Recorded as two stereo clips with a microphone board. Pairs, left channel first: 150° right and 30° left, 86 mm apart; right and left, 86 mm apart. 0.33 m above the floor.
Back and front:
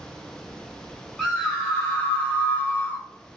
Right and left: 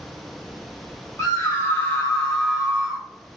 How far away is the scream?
About 1.1 m.